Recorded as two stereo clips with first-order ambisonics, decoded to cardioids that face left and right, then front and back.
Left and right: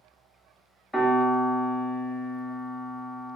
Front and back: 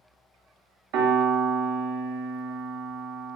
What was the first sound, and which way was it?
A piano, 175° left.